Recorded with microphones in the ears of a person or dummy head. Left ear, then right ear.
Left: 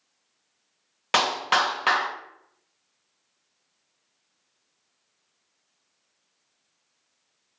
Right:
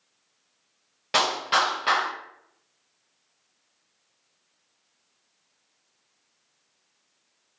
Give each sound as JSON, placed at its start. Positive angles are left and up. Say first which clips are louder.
{"t": 1.1, "sound": "a clap", "louder": "left 1 dB", "side_deg": 40, "distance_m": 0.7}